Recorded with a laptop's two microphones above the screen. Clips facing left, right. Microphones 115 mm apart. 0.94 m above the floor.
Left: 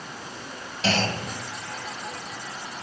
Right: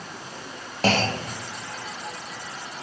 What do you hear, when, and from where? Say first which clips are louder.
0.8 s a clunk: right 3 dB; 50° right (ahead or behind), 1.0 m